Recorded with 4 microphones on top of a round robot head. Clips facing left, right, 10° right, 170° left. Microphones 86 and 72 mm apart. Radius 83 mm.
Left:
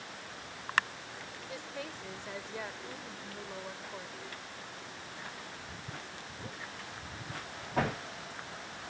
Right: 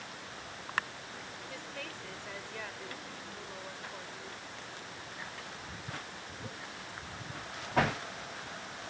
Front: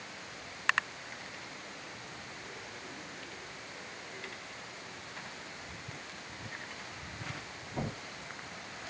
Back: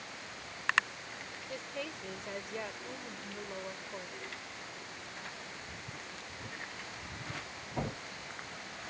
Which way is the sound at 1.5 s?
160° left.